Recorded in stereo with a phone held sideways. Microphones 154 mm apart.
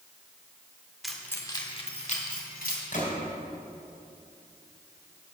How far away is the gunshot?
About 3 m.